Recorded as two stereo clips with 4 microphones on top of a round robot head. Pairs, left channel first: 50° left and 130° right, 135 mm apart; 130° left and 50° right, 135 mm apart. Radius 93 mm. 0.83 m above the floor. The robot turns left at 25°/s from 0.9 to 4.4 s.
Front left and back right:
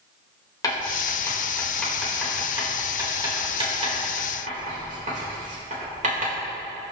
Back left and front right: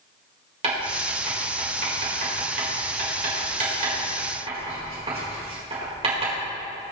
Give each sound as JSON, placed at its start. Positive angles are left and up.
{"t": 0.6, "sound": "writing", "azimuth_deg": -10, "distance_m": 3.5}